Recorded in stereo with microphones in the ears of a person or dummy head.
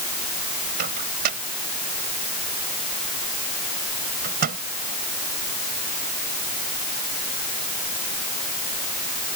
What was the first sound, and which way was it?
A microwave, 50° right (ahead or behind).